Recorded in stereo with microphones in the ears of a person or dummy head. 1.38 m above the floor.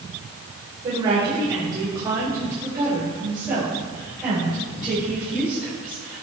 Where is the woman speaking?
30° right (ahead or behind), 4.5 m; by 6.2 s centre (ahead or behind), 8.5 m.